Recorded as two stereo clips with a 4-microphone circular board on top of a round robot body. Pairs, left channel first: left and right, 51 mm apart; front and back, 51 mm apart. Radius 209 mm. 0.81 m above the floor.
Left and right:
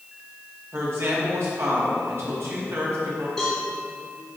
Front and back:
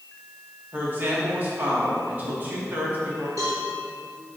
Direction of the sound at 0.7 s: 125° right.